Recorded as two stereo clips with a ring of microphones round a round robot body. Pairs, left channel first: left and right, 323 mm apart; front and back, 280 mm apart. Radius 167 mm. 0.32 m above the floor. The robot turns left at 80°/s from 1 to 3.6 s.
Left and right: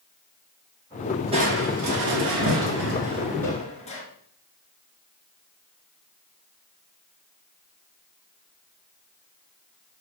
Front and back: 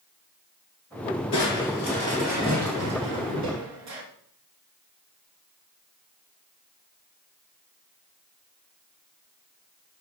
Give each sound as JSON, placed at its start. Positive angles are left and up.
{"t": 1.3, "sound": "crushing", "azimuth_deg": -20, "distance_m": 3.5}